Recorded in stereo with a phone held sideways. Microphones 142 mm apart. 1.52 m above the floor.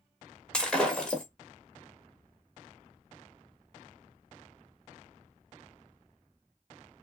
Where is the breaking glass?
5° left (ahead or behind), 1.4 m.